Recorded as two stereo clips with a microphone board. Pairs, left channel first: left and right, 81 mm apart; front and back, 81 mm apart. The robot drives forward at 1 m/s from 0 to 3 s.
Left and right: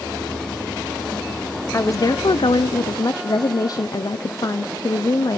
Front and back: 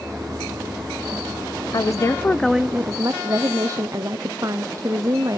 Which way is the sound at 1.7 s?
35° left.